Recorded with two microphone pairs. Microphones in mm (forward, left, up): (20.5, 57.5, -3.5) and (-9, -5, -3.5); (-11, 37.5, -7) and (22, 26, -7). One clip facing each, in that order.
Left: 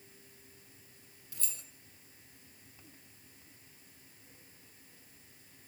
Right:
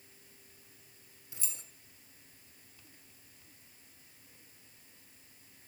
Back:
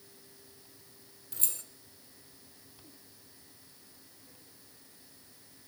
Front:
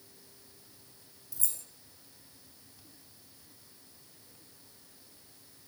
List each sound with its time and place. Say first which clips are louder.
1.3 s keys jangling: even, back 3 dB; 175° left, 1.4 m